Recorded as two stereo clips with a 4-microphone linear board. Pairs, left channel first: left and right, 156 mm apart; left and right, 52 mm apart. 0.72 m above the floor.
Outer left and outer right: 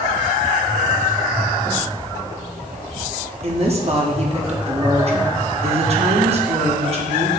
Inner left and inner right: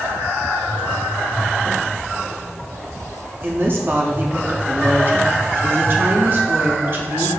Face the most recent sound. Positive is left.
turn(degrees=-40)  # may be behind; listen again after turning